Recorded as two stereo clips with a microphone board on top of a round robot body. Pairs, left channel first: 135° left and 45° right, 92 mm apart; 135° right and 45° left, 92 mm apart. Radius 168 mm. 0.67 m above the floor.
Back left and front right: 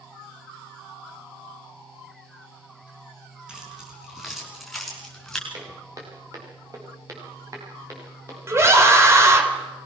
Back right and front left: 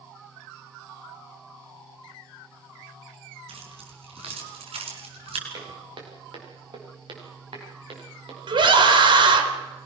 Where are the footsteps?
10° left, 7 m; by 9.5 s 15° left, 10 m.